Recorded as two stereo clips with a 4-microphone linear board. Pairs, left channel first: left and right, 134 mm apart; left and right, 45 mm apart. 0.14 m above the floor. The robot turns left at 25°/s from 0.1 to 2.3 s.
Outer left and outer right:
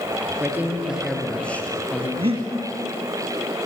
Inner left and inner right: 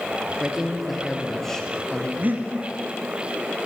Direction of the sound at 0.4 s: 160° right.